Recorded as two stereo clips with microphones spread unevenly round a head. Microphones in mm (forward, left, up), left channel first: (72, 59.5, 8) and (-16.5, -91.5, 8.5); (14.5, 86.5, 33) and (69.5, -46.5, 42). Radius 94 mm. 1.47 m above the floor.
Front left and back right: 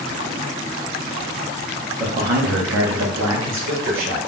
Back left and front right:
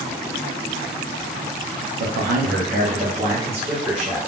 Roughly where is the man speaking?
Ahead right.